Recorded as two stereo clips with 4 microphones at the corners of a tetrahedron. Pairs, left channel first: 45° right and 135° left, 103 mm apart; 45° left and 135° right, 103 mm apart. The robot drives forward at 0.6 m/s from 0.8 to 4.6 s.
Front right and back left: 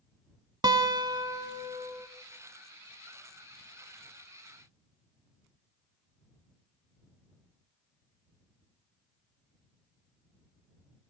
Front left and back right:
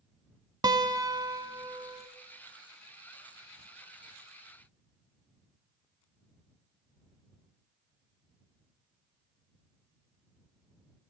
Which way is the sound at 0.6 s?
Straight behind.